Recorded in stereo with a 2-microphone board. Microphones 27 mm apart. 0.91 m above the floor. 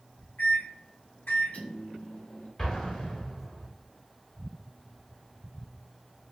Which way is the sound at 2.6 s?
20° left (ahead or behind).